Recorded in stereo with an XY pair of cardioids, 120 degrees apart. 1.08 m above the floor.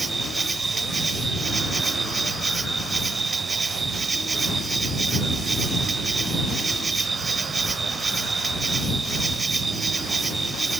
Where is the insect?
25° right.